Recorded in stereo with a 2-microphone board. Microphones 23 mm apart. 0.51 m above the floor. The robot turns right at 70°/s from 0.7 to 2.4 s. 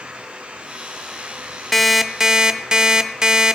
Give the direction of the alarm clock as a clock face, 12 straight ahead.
6 o'clock.